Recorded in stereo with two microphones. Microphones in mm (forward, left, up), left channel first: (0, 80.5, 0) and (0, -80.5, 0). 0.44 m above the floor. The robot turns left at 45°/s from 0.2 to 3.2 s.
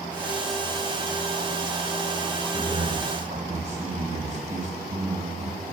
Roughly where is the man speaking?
Right.